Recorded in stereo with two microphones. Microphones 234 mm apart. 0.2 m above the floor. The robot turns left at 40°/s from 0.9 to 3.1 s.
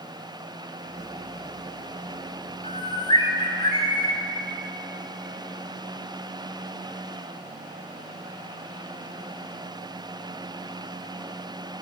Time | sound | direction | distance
2.6 | a bird | 25° left (ahead or behind) | 1.2 m